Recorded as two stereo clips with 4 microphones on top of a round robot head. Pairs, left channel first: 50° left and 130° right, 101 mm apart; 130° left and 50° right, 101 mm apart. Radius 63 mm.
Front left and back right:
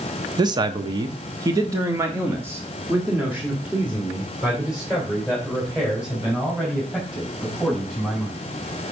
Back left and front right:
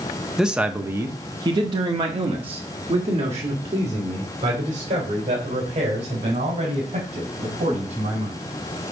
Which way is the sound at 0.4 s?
135° right.